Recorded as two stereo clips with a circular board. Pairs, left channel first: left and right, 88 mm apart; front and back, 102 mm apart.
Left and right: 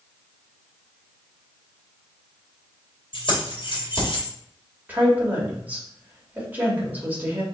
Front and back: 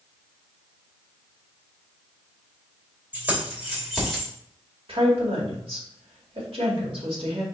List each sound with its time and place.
3.1 s keys jangling: 105° left, 2 m; by 4.3 s 85° left, 2 m
4.9 s a woman speaking: 160° right, 2.0 m